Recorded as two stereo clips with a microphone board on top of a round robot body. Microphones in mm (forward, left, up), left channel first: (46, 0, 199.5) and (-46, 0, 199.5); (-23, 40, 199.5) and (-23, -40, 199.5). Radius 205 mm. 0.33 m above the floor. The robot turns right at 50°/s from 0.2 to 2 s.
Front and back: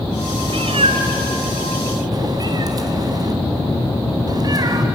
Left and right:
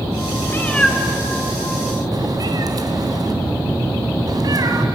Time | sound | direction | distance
0.5 | a cat meowing | 155° left | 1.3 m